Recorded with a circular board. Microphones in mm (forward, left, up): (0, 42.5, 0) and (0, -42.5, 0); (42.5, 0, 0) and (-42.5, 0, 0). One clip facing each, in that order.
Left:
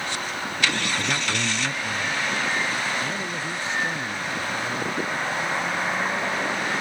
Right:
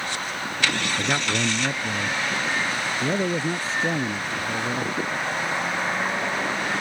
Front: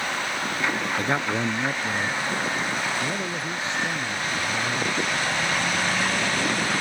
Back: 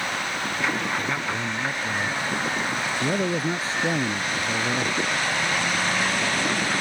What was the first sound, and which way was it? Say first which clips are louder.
A man speaking: right 2 dB, front 3 dB; 35° right.